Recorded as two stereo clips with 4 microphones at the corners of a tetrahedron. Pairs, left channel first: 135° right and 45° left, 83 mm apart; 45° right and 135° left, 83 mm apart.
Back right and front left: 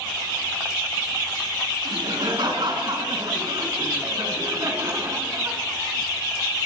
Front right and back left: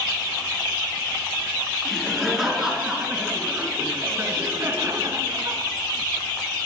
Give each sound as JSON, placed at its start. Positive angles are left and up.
{"t": 1.9, "sound": "laughter", "azimuth_deg": 45, "distance_m": 4.0}